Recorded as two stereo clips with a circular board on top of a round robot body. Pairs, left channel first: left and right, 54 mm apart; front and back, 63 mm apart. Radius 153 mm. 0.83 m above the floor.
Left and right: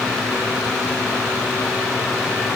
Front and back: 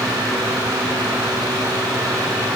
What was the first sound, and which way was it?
Only background noise.